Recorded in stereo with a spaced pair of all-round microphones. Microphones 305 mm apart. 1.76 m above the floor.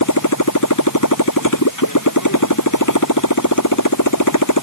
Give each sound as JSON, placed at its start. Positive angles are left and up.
{"t": 0.0, "sound": "a motorcycle", "side_deg": 80}